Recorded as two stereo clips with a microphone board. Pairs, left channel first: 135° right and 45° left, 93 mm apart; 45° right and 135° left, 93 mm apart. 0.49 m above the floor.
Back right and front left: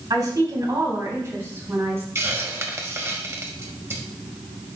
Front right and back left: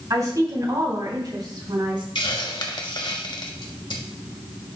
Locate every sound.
0.1 s a woman speaking: 85° left, 3 m; by 2.0 s 105° left, 3.5 m
2.1 s a hiss: 15° right, 1.4 m